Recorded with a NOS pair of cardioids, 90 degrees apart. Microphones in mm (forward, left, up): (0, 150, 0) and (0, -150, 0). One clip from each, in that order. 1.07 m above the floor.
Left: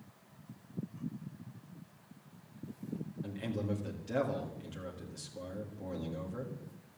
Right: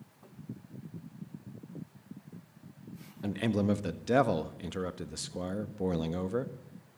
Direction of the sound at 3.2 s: 65° right.